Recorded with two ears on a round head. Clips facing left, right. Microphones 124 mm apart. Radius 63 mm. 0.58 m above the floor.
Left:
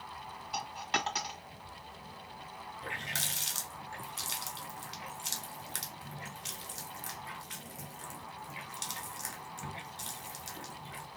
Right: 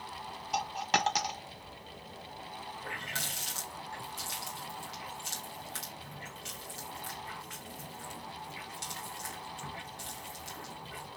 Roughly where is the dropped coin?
Right.